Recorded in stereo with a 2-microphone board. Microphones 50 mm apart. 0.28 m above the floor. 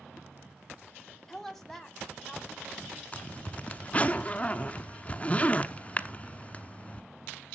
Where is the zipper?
25° left (ahead or behind), 0.7 m.